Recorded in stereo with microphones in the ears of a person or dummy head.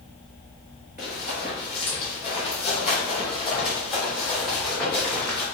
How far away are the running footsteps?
About 1.3 m.